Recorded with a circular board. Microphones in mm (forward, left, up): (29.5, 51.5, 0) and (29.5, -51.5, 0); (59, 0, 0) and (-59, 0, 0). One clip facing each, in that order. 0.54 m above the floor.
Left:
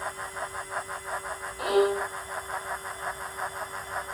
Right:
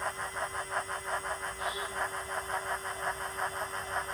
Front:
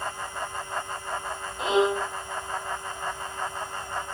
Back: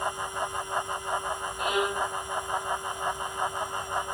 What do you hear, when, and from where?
1.6 s a violin: 65° left